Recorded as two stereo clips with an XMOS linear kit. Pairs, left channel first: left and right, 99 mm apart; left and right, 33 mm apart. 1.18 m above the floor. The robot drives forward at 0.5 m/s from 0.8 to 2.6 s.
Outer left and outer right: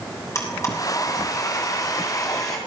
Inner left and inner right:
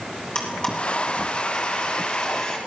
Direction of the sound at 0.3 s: 30° left (ahead or behind).